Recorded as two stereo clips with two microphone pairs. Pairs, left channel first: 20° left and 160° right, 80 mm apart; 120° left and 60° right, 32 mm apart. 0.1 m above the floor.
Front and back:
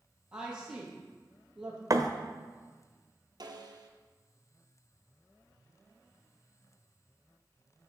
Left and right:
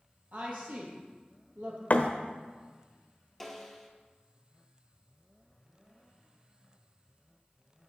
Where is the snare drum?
155° right, 0.9 m.